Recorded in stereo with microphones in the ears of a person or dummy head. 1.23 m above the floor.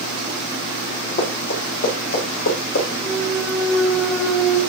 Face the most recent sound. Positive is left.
turn(degrees=5)  # may be behind; listen again after turning